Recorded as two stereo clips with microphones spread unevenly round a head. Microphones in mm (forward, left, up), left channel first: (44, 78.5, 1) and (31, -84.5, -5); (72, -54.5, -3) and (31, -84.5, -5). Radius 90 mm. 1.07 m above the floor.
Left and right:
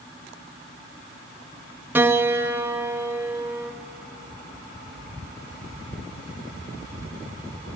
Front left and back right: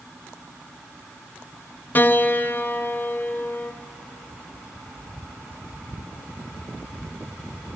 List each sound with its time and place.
1.9 s a piano: 15° right, 0.6 m